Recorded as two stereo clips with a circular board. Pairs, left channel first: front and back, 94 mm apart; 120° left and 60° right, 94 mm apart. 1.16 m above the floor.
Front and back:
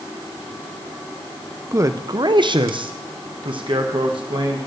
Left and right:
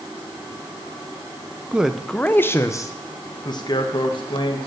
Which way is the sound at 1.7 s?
130° right.